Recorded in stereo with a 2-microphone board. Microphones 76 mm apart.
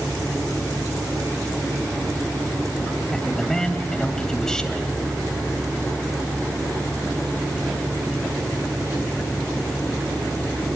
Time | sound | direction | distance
3.1 | a man speaking | 10° left (ahead or behind) | 3 m